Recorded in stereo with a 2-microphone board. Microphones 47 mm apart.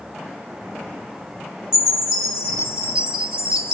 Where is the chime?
20° right (ahead or behind), 1.7 m.